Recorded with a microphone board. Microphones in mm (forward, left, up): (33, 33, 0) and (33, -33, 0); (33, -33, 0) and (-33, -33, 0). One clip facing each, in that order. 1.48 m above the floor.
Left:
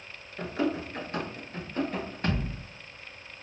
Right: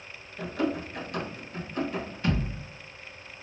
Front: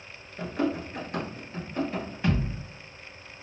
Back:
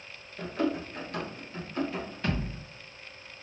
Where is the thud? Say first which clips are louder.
Right 2 dB, front 5 dB; 70° left, 1.9 m.